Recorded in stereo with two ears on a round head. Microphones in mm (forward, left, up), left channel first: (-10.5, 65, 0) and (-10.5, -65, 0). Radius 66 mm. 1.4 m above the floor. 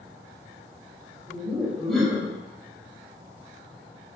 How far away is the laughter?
About 1.5 m.